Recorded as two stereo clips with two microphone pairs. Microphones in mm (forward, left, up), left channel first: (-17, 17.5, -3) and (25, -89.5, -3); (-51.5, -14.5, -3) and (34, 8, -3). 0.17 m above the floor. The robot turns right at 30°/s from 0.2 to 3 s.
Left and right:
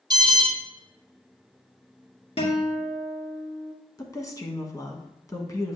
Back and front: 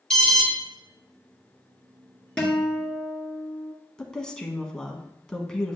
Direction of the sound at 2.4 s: 115° left.